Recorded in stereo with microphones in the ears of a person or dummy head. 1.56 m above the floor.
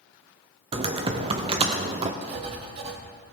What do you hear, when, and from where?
0.7 s typing on a keyboard: 25° right (ahead or behind), 0.6 m
2.2 s writing: 40° right (ahead or behind), 1.3 m